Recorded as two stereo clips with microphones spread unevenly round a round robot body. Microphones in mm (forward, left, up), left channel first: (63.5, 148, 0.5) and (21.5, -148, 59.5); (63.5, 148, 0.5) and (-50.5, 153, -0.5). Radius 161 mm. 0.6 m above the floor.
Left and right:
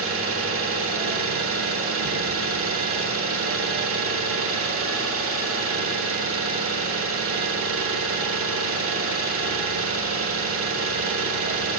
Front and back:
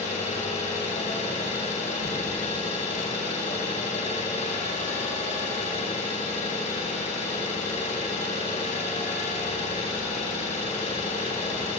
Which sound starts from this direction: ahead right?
An engine running, at 0.0 s.